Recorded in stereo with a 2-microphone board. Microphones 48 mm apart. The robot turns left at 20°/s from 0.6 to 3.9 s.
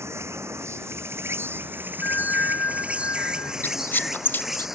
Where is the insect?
105° right; by 4.8 s 170° right.